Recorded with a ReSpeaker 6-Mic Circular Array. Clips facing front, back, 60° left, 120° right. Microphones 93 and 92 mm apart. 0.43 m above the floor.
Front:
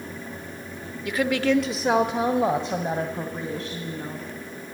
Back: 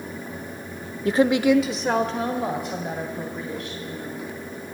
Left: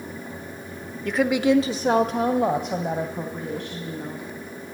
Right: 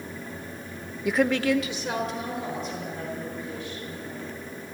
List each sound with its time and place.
1.1 s a woman speaking: 165° left, 1.0 m; by 4.3 s 55° left, 4 m